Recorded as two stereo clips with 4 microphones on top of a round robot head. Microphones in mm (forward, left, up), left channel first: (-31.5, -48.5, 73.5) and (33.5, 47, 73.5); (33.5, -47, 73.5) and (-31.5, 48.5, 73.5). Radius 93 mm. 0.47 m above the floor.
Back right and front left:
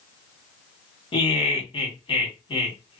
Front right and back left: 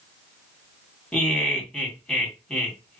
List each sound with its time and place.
1.1 s laughter: 135° right, 1.8 m